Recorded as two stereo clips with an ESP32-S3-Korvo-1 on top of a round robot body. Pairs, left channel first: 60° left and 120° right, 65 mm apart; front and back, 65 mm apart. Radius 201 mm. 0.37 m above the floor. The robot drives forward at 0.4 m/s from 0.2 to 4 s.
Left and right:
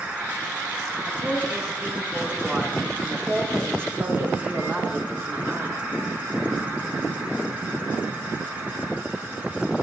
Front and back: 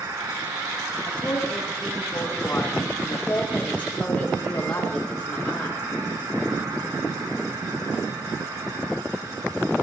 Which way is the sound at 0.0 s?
175° left.